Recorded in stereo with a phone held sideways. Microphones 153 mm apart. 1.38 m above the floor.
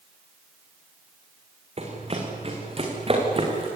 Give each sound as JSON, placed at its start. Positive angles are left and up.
{"t": 1.8, "sound": "running footsteps", "side_deg": -40, "distance_m": 5.0}